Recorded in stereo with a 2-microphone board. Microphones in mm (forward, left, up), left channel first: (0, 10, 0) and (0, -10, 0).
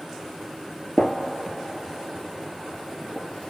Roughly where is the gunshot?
Left.